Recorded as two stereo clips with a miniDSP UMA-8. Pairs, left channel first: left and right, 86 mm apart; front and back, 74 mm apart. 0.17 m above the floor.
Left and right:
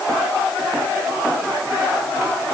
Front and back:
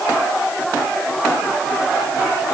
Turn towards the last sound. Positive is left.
No sound to turn to.